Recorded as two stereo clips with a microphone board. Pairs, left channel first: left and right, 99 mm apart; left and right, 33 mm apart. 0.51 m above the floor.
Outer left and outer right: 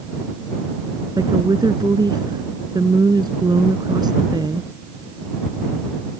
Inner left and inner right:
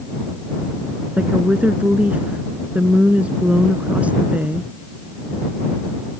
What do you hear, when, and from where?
1.2 s a woman speaking: 45° right (ahead or behind)